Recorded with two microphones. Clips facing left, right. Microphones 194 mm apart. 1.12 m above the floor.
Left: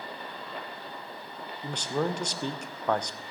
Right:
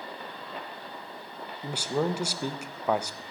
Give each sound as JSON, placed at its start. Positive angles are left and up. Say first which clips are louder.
{"t": 1.6, "sound": "a man speaking", "louder": "right 1 dB", "side_deg": -10, "distance_m": 0.5}